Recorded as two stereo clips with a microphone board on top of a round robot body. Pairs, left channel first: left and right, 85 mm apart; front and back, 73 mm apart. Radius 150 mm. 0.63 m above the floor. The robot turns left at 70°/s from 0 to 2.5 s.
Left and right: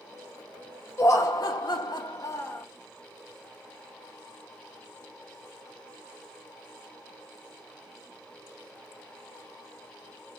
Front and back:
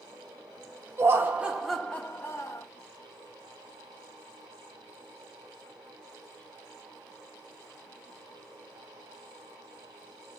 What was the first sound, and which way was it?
Laughter, 140° left.